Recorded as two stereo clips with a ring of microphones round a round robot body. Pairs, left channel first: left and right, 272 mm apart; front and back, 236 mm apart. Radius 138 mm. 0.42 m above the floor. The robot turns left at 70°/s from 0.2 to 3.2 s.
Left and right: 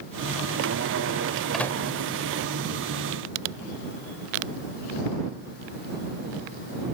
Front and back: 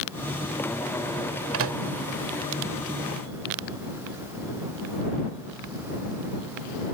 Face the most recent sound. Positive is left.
turn(degrees=65)